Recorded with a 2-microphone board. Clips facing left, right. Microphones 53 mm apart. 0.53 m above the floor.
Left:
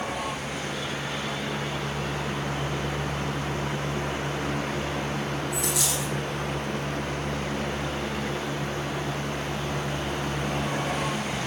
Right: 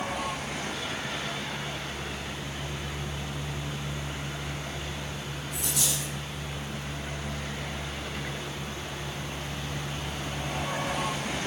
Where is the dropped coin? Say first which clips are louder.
Left 5 dB; 70° left (ahead or behind), 5.5 m.